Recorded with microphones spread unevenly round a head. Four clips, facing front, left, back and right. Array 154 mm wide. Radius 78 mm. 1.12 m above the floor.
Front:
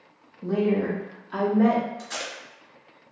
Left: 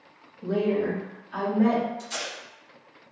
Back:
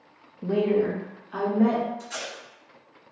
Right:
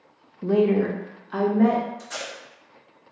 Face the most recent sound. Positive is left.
turn(degrees=-20)